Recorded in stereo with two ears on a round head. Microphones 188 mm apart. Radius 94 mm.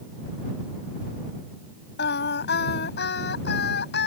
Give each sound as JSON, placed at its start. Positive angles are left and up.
{"t": 2.0, "sound": "singing", "side_deg": 60}